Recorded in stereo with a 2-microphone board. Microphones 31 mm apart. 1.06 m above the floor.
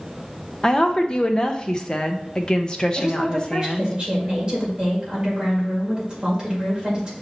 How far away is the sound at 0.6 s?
About 0.6 m.